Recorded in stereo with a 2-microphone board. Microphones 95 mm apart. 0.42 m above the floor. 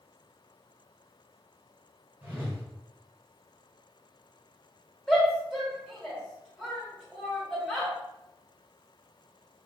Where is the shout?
Centre (ahead or behind), 1.6 m.